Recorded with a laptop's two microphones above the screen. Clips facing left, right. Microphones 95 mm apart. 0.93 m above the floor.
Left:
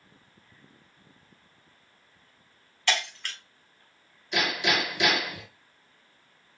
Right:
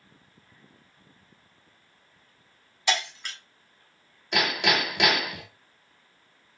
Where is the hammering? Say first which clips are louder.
Right 2 dB; 65° right (ahead or behind), 1.5 m.